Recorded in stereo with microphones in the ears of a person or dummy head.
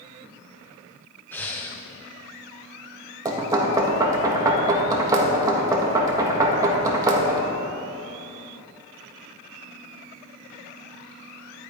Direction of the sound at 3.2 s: 20° right (ahead or behind).